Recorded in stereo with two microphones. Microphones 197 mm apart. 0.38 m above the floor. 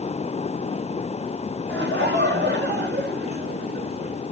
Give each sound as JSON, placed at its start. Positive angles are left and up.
{"t": 1.7, "sound": "laughter", "side_deg": -70, "distance_m": 5.5}